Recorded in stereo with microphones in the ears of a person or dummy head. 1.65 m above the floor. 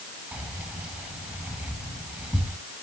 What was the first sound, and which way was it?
Keys jangling, 10° right (ahead or behind).